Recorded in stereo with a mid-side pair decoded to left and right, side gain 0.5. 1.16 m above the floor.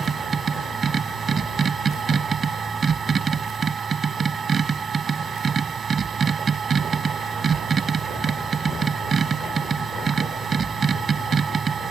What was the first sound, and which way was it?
A machine running, 40° right.